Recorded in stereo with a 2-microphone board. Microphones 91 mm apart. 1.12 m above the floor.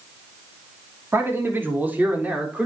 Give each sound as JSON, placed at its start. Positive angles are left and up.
{"t": 1.1, "sound": "a man speaking", "side_deg": -25, "distance_m": 3.0}